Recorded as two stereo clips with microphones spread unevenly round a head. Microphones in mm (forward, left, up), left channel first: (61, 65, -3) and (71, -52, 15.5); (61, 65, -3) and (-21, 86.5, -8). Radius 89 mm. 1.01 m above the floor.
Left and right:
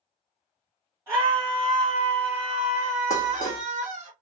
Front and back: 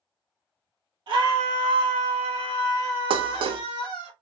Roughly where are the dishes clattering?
Behind left.